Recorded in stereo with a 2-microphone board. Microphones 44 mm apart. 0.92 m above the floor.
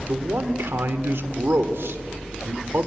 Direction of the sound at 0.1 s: 65° right (ahead or behind).